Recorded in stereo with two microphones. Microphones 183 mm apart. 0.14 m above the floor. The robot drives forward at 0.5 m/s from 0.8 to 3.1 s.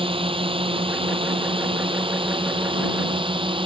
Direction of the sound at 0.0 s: 30° right (ahead or behind).